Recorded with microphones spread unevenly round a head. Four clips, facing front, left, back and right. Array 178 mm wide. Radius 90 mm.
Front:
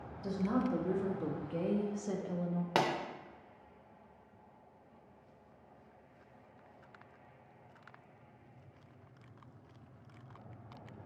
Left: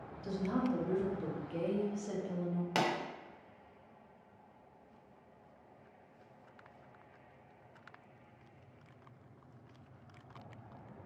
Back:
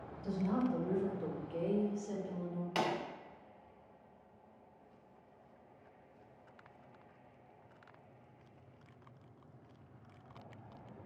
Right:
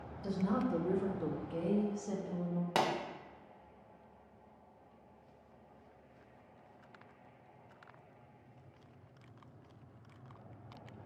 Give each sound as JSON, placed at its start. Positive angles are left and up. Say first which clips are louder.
{"t": 0.2, "sound": "a woman speaking", "louder": "even, front 1 dB", "azimuth_deg": -40, "distance_m": 1.8}
{"t": 2.8, "sound": "a pop", "louder": "right 1 dB, front 4 dB", "azimuth_deg": -5, "distance_m": 1.3}